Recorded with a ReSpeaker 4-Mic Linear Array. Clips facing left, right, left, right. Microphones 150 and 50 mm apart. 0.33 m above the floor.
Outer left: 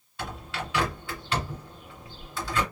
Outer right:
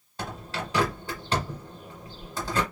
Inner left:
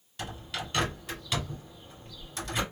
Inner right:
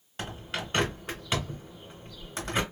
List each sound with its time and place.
0.2 s a bird: 40° right (ahead or behind), 1.6 m